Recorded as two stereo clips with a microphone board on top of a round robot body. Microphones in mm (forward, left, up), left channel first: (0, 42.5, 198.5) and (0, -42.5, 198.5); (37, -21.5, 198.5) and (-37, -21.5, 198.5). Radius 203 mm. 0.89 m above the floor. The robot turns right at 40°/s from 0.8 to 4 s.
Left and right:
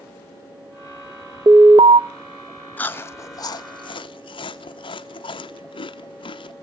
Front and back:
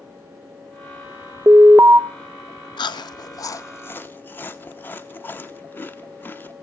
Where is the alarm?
135° right, 0.6 m; by 2.0 s 110° right, 0.6 m.